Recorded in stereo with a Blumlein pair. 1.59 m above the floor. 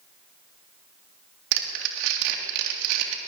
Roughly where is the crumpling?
Ahead right.